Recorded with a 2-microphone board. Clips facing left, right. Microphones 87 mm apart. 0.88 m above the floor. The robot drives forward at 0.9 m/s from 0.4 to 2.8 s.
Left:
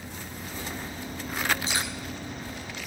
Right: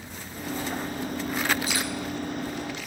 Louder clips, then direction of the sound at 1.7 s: Right 2 dB; 25° left (ahead or behind).